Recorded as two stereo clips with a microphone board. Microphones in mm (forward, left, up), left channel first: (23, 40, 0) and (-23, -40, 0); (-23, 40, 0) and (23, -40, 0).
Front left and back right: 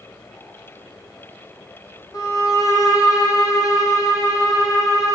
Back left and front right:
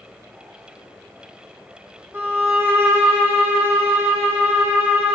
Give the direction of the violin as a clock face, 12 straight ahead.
12 o'clock.